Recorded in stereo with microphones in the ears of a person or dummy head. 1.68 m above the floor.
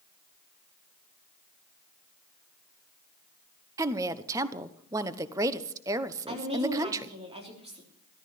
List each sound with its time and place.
3.8 s a woman speaking: 20° right (ahead or behind), 0.9 m
6.3 s a woman speaking: 30° right (ahead or behind), 3.5 m